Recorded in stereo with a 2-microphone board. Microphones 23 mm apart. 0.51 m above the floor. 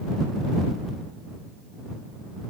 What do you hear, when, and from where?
Only background noise.